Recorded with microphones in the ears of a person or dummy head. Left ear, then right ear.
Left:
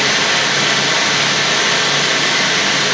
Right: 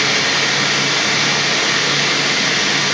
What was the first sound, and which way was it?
Running water, 45° left (ahead or behind).